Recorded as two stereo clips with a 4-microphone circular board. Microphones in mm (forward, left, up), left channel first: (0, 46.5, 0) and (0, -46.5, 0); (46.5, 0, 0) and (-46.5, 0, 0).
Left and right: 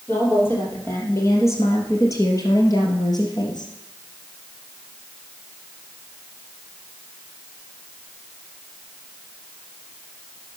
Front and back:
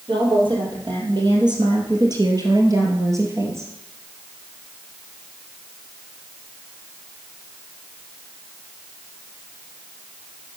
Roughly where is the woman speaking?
Behind left.